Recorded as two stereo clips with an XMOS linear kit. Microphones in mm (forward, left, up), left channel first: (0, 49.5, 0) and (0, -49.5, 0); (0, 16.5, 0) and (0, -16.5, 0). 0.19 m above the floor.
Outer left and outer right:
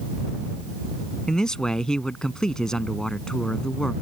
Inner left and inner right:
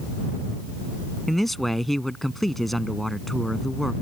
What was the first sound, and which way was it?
A man speaking, 5° left (ahead or behind).